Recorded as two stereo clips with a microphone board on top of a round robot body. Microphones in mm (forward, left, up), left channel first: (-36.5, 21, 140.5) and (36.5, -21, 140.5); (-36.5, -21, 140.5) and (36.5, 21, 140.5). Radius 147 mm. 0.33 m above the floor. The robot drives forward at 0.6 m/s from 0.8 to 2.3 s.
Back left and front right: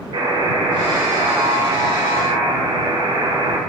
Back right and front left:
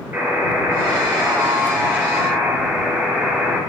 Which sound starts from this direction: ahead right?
A buzzer, at 0.1 s.